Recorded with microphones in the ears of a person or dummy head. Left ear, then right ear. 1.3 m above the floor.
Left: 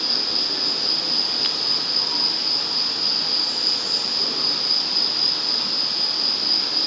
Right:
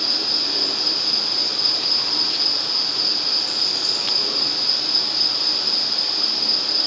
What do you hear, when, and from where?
0.0 s an insect: 75° right (ahead or behind), 3.5 m